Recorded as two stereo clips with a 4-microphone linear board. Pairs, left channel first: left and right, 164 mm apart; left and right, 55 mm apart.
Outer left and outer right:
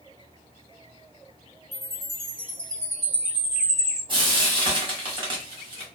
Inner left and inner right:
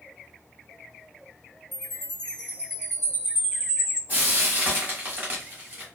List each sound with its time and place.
1.7 s a chime: 40° right (ahead or behind), 1.6 m
4.1 s frying: 30° right (ahead or behind), 1.3 m